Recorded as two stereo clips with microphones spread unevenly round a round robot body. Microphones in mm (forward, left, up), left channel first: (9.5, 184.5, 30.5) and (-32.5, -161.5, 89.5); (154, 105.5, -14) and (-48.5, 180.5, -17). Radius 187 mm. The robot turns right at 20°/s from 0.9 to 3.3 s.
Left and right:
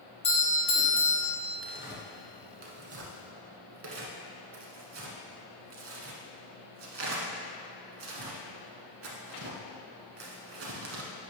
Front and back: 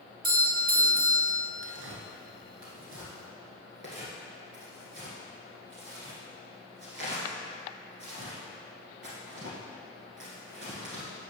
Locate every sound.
0.2 s a doorbell: 140° left, 1.8 m; by 1.4 s 150° left, 1.8 m
1.6 s tearing paper: straight behind, 1.1 m; by 11.3 s 145° right, 1.1 m